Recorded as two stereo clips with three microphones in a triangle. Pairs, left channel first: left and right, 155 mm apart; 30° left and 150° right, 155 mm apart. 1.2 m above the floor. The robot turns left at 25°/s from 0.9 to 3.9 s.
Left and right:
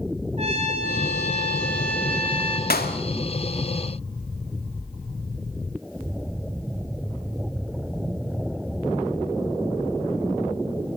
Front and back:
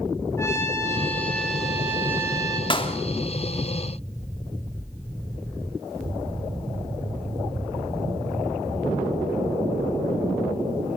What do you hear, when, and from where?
0.4 s a trumpet: 45° right, 5 m; by 2.6 s 85° right, 5 m
2.7 s a clap: 90° left, 2.5 m; by 3.0 s 80° left, 2.5 m